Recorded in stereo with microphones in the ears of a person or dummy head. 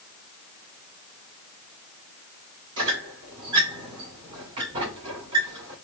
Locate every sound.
2.8 s a squeak: 30° right (ahead or behind), 2 m